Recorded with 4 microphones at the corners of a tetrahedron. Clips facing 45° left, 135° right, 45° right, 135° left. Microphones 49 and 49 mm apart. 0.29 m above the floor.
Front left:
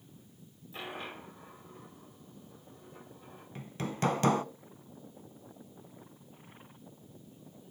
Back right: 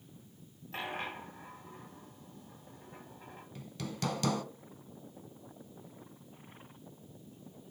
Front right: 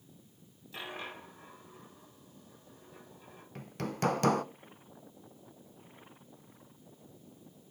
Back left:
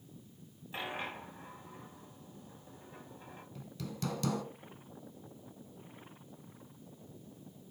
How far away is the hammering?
About 0.5 m.